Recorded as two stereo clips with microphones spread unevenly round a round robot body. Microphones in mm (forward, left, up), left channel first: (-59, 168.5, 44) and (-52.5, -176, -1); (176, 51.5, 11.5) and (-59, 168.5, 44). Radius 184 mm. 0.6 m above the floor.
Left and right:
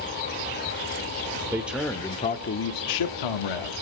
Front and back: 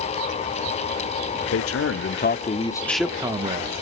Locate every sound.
1.5 s a man speaking: 10° right, 1.5 m; by 3.7 s 90° left, 1.4 m